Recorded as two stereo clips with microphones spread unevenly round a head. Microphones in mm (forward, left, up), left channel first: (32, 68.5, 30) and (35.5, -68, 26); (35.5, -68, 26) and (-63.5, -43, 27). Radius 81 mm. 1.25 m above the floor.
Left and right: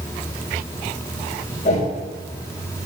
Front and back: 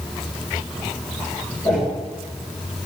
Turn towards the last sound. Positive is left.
turn(degrees=50)